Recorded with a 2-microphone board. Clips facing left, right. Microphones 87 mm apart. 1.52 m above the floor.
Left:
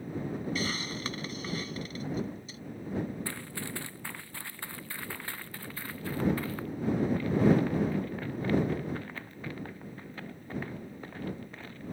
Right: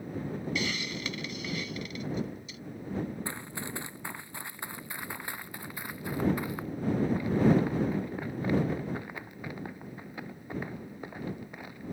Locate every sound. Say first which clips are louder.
0.6 s a hiss: even; 35° left (ahead or behind)
3.2 s running footsteps: right 1 dB; 20° right (ahead or behind); by 11.9 s 15° right (ahead or behind)